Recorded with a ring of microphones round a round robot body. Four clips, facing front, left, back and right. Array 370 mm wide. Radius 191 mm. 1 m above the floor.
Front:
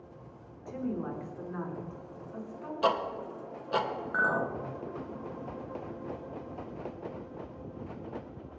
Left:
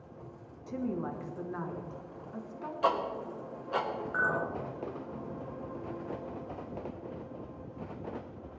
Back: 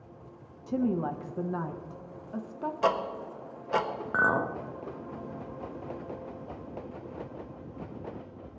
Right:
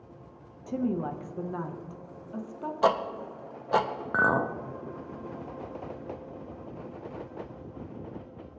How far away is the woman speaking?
About 1.1 m.